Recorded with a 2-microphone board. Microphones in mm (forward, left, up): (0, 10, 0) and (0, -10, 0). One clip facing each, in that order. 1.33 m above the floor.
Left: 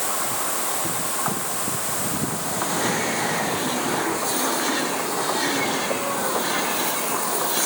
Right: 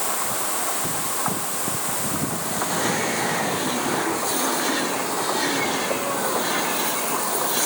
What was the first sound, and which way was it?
Only background noise.